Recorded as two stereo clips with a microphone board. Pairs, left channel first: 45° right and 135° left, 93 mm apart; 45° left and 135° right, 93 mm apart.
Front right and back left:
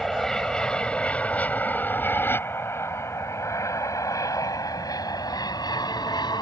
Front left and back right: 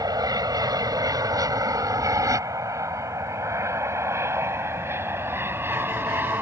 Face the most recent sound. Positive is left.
turn(degrees=-70)